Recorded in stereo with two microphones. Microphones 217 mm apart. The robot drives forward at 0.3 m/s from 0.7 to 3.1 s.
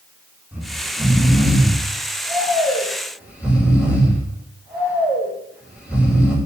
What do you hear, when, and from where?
0.5 s snoring: 10° right (ahead or behind), 4 m; by 6.3 s 5° right (ahead or behind), 5 m